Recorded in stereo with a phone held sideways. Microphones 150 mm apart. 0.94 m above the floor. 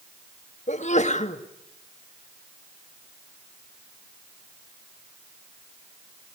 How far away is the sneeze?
About 1.5 m.